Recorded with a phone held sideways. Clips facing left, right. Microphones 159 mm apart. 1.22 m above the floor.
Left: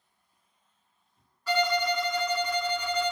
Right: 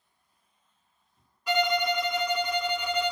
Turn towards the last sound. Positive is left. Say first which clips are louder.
# even
turn(degrees=-15)  # may be behind; listen again after turning